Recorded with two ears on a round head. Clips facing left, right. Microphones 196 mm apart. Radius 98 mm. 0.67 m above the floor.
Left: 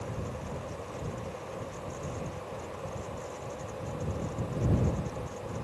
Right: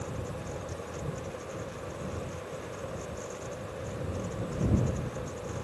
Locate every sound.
Only background noise.